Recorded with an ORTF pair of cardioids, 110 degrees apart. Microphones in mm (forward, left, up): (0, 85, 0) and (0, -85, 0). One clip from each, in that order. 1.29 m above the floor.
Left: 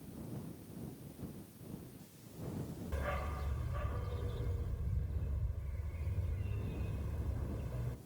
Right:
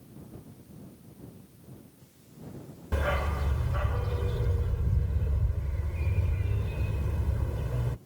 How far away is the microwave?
No microwave in this recording.